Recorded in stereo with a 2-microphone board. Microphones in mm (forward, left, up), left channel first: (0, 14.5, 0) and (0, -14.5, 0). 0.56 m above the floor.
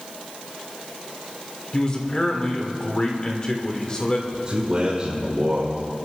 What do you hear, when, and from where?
1.7 s a man speaking: 30° left (ahead or behind), 1.9 m
4.3 s a man speaking: 30° right (ahead or behind), 2 m